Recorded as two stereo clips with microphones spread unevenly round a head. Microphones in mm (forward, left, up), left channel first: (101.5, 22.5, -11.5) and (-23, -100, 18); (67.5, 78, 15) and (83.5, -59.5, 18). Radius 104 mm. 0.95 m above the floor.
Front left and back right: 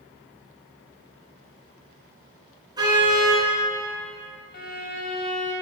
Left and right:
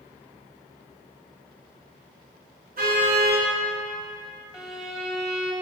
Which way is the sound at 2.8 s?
70° right.